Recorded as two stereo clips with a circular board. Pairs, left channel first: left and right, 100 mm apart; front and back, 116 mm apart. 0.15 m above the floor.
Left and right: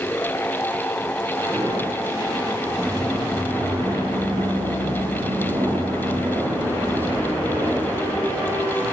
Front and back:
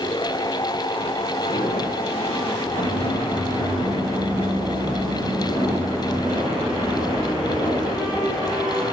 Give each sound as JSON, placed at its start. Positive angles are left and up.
{"t": 1.4, "sound": "footsteps", "azimuth_deg": -30, "distance_m": 6.0}